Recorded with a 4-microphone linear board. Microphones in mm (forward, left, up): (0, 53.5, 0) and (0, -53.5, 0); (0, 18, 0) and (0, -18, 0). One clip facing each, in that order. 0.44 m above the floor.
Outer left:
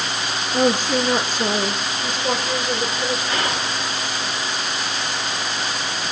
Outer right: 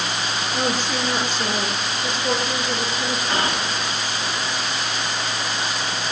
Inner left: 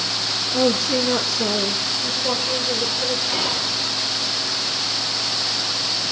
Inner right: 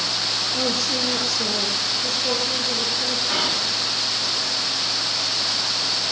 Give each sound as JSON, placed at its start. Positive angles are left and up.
{"t": 0.5, "sound": "a woman speaking", "side_deg": 15, "distance_m": 7.0}
{"t": 3.3, "sound": "whispering", "side_deg": -35, "distance_m": 5.0}